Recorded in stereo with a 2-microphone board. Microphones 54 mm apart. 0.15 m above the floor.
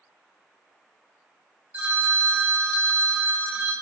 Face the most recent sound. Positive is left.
turn(degrees=-30)  # may be behind; listen again after turning